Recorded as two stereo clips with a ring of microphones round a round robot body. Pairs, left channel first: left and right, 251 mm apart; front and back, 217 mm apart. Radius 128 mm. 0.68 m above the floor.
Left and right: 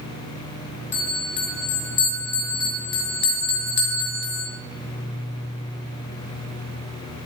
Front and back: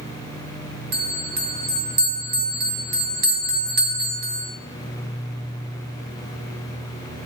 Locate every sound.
0.9 s a bell: 135° left, 4 m